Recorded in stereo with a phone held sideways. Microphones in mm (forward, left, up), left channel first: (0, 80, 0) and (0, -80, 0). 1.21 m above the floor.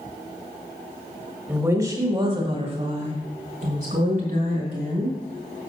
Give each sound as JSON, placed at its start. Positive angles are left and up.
{"t": 1.5, "sound": "a woman speaking", "side_deg": -10, "distance_m": 2.0}